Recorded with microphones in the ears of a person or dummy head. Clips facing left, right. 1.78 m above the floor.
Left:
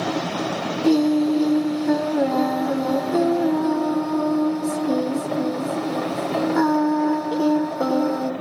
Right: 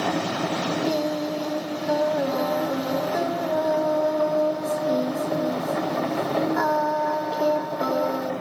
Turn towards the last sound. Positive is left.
turn(degrees=50)  # may be behind; listen again after turning